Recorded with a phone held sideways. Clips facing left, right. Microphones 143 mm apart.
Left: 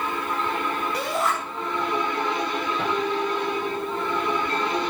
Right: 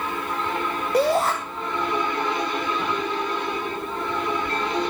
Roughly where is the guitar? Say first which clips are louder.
Left 2 dB; left.